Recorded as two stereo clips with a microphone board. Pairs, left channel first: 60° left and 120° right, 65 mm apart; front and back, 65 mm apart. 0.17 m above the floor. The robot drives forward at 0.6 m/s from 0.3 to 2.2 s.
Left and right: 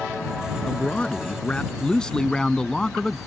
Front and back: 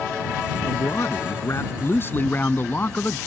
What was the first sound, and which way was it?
A man speaking, 5° right.